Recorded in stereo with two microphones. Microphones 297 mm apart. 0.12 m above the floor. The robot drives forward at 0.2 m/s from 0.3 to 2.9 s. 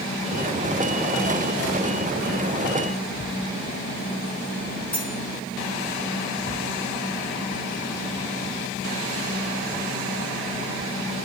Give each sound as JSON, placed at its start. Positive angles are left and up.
{"t": 4.9, "sound": "cutlery clinking", "side_deg": 15, "distance_m": 1.1}